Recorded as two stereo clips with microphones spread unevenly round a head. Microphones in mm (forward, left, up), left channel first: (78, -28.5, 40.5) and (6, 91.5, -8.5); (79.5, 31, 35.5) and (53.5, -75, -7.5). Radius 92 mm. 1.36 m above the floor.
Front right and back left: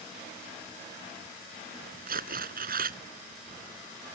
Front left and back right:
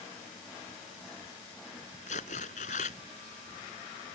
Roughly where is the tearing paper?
Left.